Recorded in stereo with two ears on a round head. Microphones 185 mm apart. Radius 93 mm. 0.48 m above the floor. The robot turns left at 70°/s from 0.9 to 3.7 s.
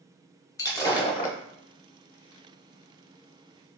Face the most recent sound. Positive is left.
turn(degrees=-35)